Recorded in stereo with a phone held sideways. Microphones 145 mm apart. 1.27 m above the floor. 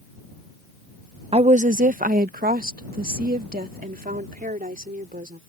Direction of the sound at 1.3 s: 45° right (ahead or behind).